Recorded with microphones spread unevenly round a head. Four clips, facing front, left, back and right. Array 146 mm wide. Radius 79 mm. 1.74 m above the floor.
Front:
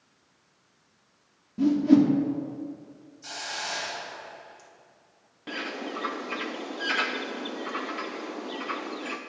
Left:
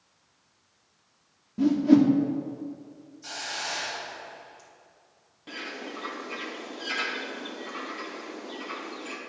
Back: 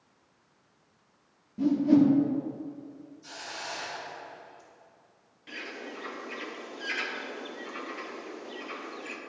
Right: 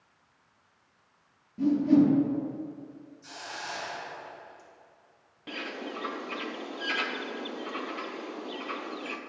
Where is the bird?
10° right, 0.8 m.